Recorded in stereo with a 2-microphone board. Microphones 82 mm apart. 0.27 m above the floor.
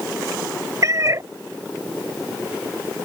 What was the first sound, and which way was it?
A cat meowing, 40° right (ahead or behind).